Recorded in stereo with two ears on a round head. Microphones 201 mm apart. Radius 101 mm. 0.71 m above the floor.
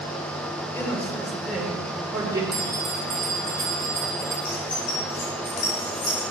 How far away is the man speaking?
About 2.5 m.